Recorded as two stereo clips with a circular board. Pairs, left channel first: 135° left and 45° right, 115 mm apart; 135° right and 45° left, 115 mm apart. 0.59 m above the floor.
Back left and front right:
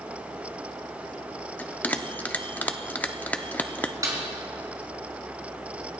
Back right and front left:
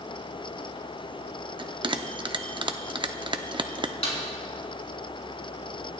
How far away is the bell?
About 0.6 m.